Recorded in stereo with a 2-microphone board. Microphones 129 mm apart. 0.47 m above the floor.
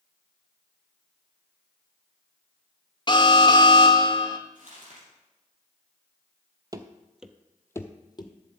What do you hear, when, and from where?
3.1 s an alarm: 35° left (ahead or behind), 0.8 m
4.5 s crumpling: 70° right (ahead or behind), 4.5 m
6.7 s running footsteps: 30° right (ahead or behind), 0.7 m; by 8.3 s 35° left (ahead or behind), 1.0 m